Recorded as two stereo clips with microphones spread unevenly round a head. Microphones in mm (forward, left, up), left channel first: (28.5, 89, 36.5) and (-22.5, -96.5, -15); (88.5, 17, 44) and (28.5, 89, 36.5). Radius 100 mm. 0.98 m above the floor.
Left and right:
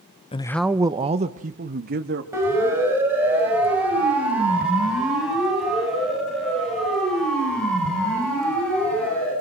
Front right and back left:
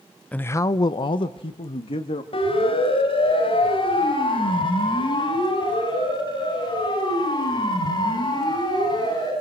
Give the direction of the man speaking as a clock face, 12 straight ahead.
11 o'clock.